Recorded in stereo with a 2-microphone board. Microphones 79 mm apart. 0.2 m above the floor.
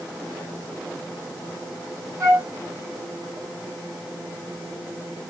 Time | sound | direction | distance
2.2 | a flute | 35° right (ahead or behind) | 2.5 m